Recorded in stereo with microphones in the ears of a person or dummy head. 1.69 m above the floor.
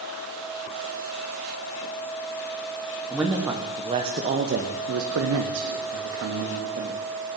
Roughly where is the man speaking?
Centre.